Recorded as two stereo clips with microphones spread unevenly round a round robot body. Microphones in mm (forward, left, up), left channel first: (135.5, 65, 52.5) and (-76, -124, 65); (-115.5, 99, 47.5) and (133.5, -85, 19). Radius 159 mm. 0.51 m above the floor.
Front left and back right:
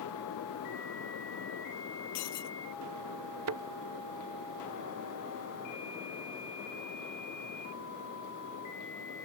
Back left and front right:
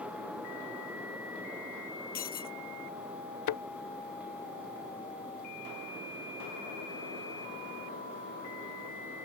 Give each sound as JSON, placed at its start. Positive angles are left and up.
{"t": 2.1, "sound": "breaking glass", "azimuth_deg": 80}
{"t": 3.5, "sound": "a thud", "azimuth_deg": 180}